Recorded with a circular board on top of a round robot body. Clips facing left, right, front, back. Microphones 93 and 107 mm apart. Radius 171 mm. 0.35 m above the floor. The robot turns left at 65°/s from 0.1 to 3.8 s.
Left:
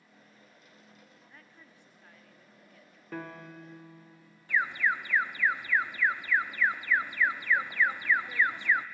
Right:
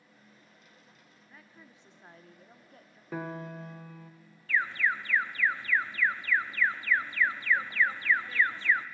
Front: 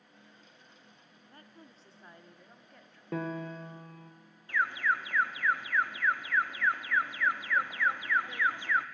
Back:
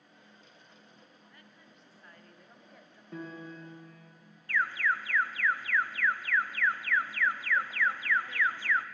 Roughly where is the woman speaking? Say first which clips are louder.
Right 1 dB, front 3 dB; ahead.